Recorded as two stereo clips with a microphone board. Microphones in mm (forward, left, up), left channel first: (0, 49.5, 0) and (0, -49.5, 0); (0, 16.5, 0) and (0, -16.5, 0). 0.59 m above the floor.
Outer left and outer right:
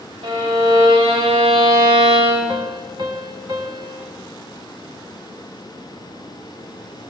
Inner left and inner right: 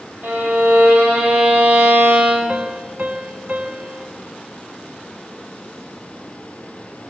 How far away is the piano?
About 0.8 m.